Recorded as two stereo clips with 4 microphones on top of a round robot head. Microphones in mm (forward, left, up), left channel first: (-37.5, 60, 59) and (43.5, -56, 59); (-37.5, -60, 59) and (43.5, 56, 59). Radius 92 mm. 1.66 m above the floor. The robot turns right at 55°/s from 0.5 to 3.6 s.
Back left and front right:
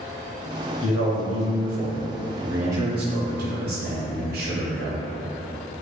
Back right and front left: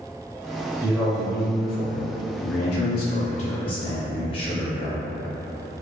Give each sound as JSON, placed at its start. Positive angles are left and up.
{"t": 0.8, "sound": "a man speaking", "azimuth_deg": 135, "distance_m": 0.6}